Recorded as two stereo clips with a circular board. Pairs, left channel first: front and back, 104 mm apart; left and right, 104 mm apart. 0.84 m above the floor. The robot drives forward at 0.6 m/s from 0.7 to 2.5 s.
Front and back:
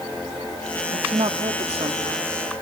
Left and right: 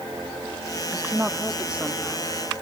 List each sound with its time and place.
0.9 s a woman speaking: 160° right; by 2.3 s 170° right